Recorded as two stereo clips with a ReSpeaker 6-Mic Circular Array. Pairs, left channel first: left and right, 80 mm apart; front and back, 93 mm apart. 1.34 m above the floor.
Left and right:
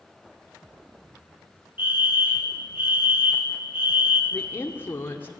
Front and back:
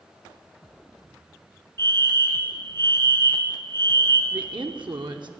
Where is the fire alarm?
40° right, 1.5 m.